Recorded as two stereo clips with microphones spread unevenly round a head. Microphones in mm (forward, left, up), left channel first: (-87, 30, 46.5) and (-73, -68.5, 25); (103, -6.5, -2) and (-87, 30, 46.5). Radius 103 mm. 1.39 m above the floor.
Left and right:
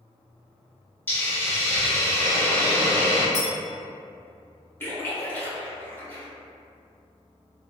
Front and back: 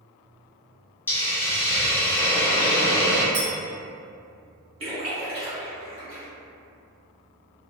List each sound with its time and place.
1.1 s a hiss: 85° left, 0.6 m
3.3 s a clink: 145° left, 1.8 m
4.8 s a splash: 140° left, 1.4 m